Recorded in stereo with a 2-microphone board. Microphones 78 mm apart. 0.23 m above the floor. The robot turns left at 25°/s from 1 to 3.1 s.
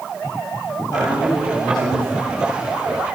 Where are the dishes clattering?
No dishes clattering in this recording.